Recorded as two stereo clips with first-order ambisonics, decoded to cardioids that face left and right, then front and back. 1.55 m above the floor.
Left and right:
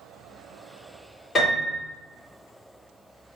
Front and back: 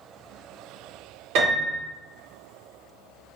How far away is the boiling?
No boiling in this recording.